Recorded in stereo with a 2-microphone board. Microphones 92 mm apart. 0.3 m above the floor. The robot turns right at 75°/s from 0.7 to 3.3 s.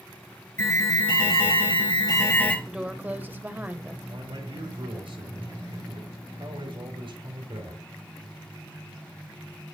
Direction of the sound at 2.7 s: 10° right (ahead or behind).